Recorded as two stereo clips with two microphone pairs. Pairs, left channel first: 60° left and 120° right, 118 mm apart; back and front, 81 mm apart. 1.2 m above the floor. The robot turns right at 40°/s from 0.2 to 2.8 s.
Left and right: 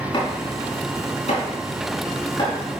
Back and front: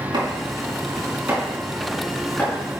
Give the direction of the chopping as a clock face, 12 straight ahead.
11 o'clock.